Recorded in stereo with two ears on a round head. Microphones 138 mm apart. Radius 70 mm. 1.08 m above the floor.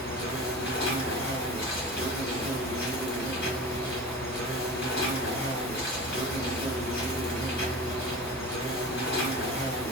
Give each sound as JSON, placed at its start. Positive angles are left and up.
{"t": 0.0, "sound": "an insect", "side_deg": 70, "distance_m": 1.4}